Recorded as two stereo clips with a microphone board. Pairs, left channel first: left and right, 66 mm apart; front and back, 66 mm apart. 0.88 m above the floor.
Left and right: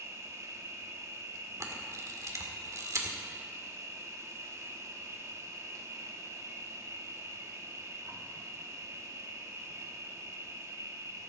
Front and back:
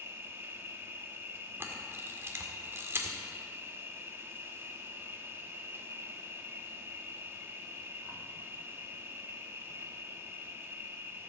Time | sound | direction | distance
0.0 | an insect | 125° right | 1.4 m
1.6 | a camera shutter | 125° right | 1.7 m